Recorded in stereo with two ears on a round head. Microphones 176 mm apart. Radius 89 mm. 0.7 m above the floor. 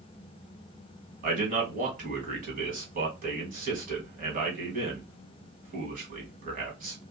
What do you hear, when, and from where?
1.2 s a man speaking: 45° right (ahead or behind), 1.6 m